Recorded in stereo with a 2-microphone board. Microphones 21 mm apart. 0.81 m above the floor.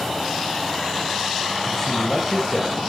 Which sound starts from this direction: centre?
A man speaking, at 1.7 s.